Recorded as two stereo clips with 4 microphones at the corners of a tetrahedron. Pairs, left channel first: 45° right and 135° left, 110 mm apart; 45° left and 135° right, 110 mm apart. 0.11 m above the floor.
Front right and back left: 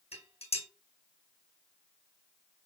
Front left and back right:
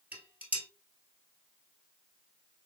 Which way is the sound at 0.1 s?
60° right.